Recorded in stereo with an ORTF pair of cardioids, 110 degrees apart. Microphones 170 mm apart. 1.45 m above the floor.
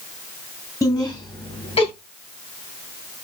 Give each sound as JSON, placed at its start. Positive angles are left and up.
{"t": 0.8, "sound": "laughter", "azimuth_deg": 20, "distance_m": 2.5}